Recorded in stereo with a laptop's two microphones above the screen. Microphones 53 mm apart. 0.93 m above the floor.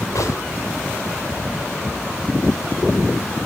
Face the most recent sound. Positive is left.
turn(degrees=85)